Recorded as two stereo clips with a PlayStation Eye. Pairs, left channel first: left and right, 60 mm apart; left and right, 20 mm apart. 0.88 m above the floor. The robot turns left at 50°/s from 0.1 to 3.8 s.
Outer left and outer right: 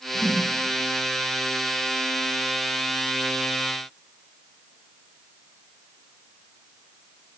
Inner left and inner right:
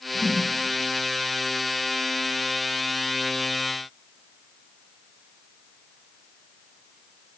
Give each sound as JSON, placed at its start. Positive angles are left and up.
{"t": 0.1, "sound": "a whoosh", "side_deg": 40, "distance_m": 4.0}